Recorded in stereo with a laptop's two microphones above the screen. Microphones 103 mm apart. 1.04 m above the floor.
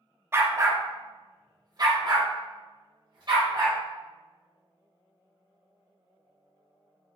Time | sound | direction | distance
0.3 | a dog barking | 20° right (ahead or behind) | 0.5 m